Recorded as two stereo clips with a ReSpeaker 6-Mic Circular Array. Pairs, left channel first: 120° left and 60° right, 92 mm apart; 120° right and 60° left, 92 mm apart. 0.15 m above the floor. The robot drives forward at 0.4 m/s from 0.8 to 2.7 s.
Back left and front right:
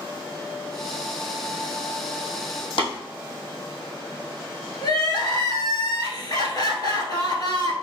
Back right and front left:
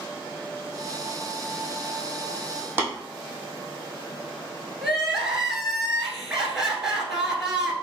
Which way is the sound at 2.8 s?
130° left.